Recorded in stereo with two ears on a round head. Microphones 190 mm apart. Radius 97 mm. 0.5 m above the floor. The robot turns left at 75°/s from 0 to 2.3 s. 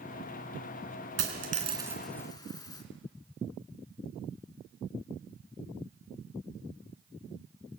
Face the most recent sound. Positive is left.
turn(degrees=20)  # may be behind; listen again after turning